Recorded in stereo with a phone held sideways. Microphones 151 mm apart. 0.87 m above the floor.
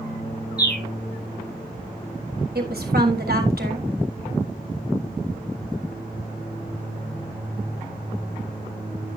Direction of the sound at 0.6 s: 70° left (ahead or behind).